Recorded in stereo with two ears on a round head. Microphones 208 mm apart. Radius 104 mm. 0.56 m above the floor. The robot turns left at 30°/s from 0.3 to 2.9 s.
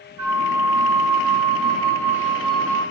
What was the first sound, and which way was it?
A flute, 95° right.